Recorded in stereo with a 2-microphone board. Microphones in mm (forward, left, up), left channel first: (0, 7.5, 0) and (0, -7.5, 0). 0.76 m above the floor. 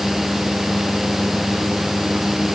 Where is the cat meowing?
No cat meowing in this recording.